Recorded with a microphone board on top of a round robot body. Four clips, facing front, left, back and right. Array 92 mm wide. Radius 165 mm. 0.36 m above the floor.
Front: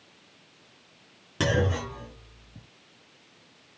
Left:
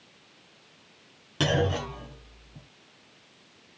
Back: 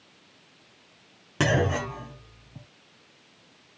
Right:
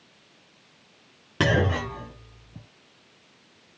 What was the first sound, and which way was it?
A clunk, 120° right.